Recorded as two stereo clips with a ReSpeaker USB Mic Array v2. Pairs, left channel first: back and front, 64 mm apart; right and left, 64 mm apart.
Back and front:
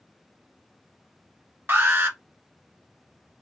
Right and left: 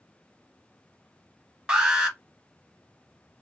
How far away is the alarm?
About 0.9 m.